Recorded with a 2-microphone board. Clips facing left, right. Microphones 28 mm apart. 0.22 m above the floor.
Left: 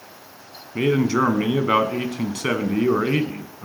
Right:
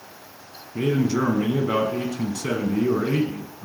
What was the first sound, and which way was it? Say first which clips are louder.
A man speaking: left 3 dB; 50° left (ahead or behind).